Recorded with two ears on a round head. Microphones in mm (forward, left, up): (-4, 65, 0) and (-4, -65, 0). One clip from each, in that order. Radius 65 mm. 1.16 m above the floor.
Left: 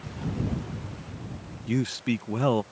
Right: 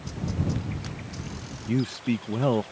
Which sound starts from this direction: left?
A man speaking, at 1.7 s.